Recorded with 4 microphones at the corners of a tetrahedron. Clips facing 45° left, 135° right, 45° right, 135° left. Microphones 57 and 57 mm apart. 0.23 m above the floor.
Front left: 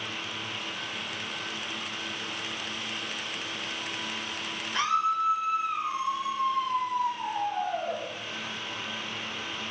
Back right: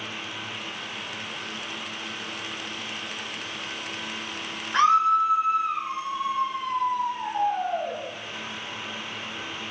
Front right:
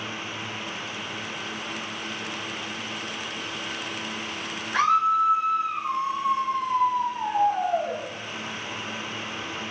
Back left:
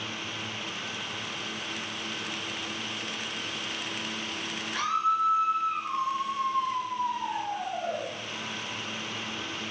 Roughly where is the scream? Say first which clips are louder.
Back right 7 dB, front right 6 dB; right.